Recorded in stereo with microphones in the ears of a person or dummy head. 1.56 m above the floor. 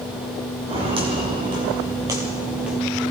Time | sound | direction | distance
0.7 | footsteps | 25° right (ahead or behind) | 3.5 m